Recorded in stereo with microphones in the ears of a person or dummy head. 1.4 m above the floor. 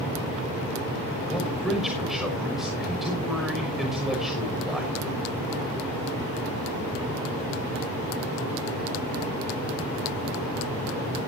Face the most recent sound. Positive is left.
turn(degrees=0)  # may be behind; listen again after turning